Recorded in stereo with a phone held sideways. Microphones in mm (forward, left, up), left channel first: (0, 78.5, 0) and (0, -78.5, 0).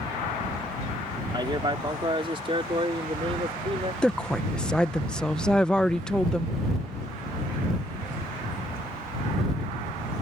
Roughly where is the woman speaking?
Centre.